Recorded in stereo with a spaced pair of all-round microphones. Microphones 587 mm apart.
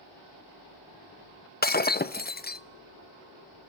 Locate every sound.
1.6 s breaking glass: 15° left (ahead or behind), 0.5 m